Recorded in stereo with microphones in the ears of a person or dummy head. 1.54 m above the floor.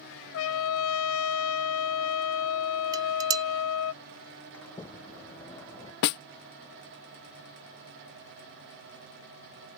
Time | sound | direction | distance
0.3 | a trumpet | 80° left | ?
2.9 | dishes clattering | 25° right (ahead or behind) | ?
4.5 | a sliding door | 15° left (ahead or behind) | ?
6.0 | a snare drum | 55° left (ahead or behind) | ?